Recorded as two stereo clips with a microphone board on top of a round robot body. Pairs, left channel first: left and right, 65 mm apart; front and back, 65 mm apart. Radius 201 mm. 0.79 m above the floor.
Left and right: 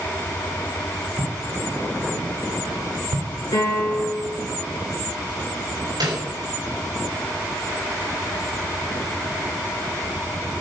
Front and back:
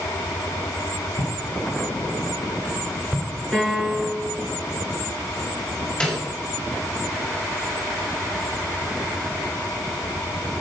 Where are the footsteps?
50° right, 3.5 m; by 3.3 s 80° right, 3 m.